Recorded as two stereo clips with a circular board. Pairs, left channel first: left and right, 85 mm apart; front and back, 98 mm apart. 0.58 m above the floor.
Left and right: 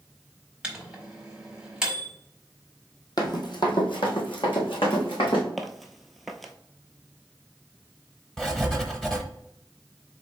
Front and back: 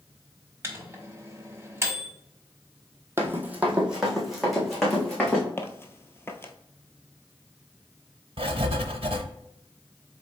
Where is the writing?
175° left, 0.6 m.